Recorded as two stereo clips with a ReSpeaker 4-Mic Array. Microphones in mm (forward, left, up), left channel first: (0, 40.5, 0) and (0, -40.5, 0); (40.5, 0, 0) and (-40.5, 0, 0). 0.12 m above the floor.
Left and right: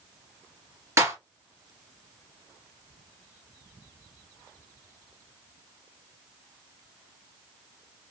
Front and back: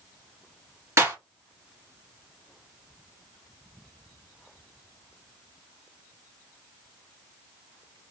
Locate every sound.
1.0 s a clap: 135° right, 2.0 m